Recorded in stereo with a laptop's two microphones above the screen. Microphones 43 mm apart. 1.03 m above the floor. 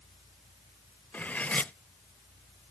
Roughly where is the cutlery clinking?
Left.